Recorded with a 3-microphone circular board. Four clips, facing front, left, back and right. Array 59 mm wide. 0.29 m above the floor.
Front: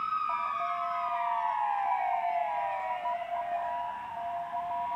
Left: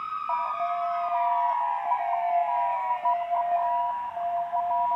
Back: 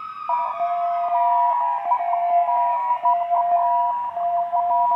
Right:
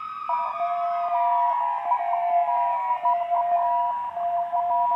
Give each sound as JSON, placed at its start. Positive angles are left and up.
{"t": 0.3, "sound": "an alarm", "azimuth_deg": -165}